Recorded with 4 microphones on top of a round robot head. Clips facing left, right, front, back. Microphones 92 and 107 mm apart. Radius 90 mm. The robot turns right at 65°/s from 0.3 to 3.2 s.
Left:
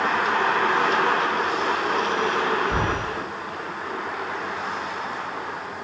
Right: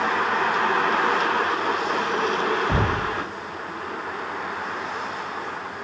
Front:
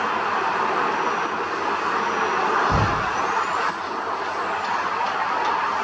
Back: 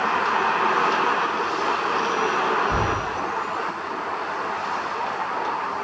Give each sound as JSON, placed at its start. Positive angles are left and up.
{"t": 2.7, "sound": "knocking", "azimuth_deg": -60, "distance_m": 3.0}